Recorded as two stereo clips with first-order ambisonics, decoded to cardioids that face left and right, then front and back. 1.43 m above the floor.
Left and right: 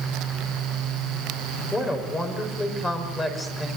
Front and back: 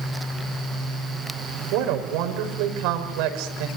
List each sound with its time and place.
1.7 s a woman speaking: 170° left, 5.5 m